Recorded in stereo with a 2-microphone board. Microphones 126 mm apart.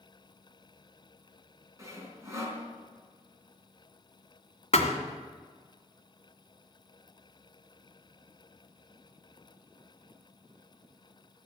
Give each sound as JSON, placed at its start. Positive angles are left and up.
{"t": 1.8, "sound": "sawing", "side_deg": -25, "distance_m": 3.5}
{"t": 4.7, "sound": "a thud", "side_deg": 55, "distance_m": 2.0}